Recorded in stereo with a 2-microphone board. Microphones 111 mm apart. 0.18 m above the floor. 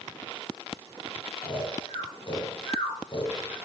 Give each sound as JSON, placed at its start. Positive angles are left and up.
{"t": 1.4, "sound": "snoring", "side_deg": 45, "distance_m": 3.5}